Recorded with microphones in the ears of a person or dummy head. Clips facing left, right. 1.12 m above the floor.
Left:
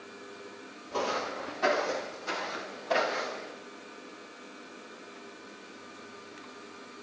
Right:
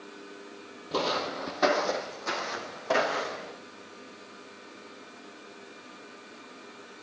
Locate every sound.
0.9 s footsteps: 60° right (ahead or behind), 2 m; by 3.5 s 75° right (ahead or behind), 5 m